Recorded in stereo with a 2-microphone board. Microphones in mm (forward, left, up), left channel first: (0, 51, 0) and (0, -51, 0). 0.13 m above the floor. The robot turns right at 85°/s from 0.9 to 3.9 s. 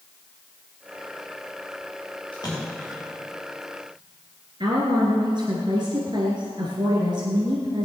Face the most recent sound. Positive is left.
turn(degrees=-50)  # may be behind; listen again after turning